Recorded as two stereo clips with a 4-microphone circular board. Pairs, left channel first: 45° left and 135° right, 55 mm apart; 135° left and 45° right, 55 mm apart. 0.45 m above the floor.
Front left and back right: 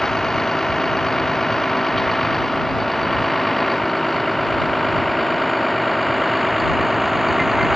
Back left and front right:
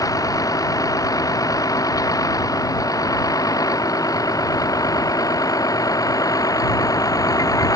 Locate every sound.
0.0 s a vehicle: 130° left; by 7.8 s 140° left